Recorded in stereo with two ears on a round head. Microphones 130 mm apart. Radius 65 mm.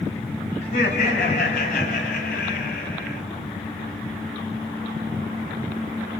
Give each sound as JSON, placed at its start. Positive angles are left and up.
{"t": 0.6, "sound": "laughter", "side_deg": 50, "distance_m": 5.5}